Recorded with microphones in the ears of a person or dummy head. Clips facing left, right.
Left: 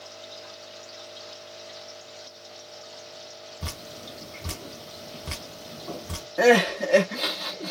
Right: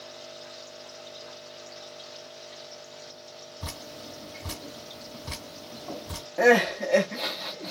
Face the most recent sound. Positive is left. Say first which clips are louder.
# left 2 dB
turn(degrees=10)  # may be behind; listen again after turning